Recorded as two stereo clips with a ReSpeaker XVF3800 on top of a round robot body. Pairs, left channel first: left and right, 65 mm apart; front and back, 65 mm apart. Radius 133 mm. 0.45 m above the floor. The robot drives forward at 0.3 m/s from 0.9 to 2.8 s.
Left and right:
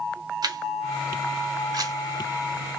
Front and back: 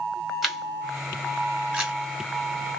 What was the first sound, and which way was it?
A camera shutter, 95° right.